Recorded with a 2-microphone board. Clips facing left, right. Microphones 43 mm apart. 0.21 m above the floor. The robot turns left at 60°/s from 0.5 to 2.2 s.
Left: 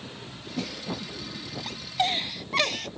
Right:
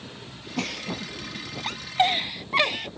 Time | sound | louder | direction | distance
0.6 | a giggle | right 3 dB | 65° right (ahead or behind) | ?